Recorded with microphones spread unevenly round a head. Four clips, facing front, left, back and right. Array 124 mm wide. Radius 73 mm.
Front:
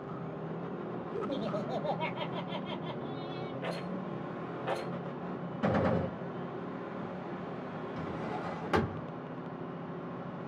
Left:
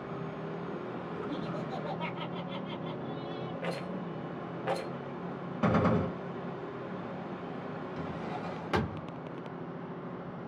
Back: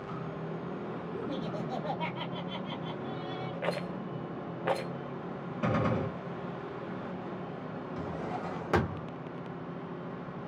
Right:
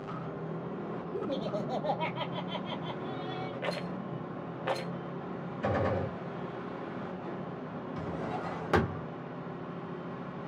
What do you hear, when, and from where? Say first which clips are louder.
1.1 s laughter: right 5 dB, front 3 dB; 75° right, 2 m
3.6 s a rattle: right 1 dB, back 3 dB; 165° right, 0.9 m
5.6 s a gunshot: left 3 dB, front 1 dB; 95° left, 1.7 m
8.0 s a drawer: right 4 dB, back 2 dB; 145° right, 0.6 m